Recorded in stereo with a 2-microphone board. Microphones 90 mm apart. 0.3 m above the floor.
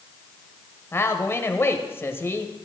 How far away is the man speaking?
About 1.3 m.